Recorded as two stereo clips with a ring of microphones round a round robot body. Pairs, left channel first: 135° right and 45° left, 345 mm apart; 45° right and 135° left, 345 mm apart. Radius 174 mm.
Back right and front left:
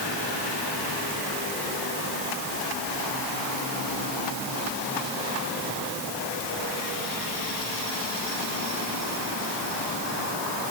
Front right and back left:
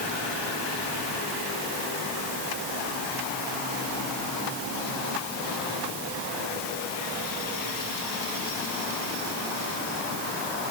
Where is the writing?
I don't hear writing.